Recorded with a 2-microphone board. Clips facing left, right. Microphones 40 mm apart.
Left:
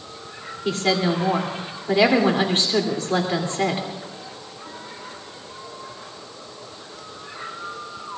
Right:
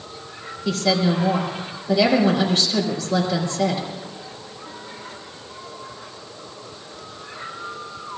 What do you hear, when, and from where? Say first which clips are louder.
0.7 s a woman speaking: right 1 dB; 40° left (ahead or behind), 3 m